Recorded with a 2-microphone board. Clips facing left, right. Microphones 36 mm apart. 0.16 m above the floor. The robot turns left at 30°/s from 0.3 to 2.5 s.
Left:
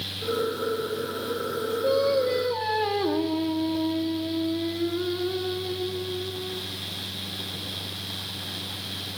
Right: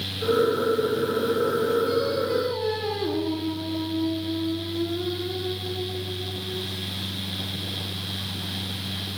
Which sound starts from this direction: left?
Singing, at 1.8 s.